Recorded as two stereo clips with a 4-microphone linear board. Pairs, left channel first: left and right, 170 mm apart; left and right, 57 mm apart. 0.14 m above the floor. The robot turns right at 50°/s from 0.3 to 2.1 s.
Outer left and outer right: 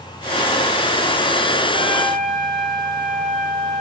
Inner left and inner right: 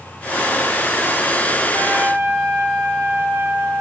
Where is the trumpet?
80° right, 8.5 m; by 3.8 s 65° right (ahead or behind), 8.5 m.